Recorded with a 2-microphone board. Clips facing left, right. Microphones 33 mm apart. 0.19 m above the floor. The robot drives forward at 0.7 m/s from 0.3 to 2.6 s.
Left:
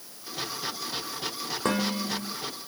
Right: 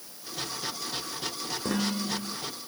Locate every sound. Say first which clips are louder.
1.6 s dishes clattering: left 2 dB; 60° left (ahead or behind), 8.5 m